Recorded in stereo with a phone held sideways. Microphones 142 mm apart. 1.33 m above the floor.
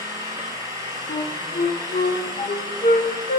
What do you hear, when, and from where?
0.0 s an engine running: 25° right (ahead or behind), 4 m
1.1 s a flute: 70° left (ahead or behind), 0.9 m